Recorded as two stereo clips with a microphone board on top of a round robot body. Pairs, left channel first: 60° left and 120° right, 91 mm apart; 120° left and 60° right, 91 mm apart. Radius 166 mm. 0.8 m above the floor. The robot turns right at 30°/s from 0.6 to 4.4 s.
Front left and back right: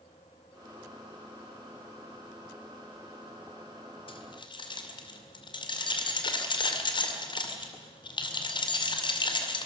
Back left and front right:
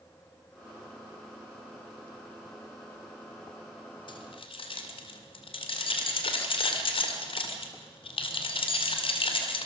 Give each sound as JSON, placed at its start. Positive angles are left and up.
{"t": 4.1, "sound": "keys jangling", "azimuth_deg": 85, "distance_m": 2.0}